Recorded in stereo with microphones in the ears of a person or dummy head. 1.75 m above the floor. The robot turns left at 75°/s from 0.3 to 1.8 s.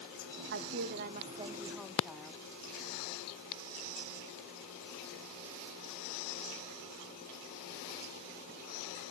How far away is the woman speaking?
About 0.8 m.